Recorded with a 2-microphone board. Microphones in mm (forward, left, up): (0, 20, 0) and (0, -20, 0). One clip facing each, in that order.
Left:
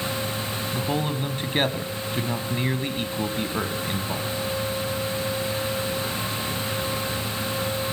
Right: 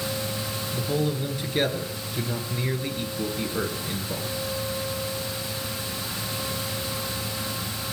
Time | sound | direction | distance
0.7 | a man speaking | 50° left (ahead or behind) | 1.6 m